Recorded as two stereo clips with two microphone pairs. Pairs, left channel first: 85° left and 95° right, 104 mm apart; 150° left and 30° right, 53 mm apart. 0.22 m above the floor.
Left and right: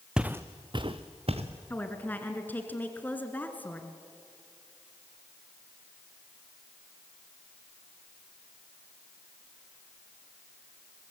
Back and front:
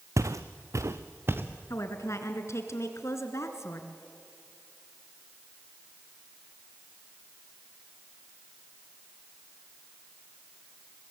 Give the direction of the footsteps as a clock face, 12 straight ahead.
12 o'clock.